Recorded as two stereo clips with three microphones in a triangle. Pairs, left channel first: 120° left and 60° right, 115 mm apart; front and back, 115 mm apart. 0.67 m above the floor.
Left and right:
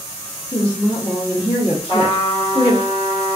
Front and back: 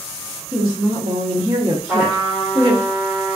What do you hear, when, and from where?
0.5 s a woman speaking: 145° left, 1.3 m
1.9 s a trumpet: 85° left, 1.3 m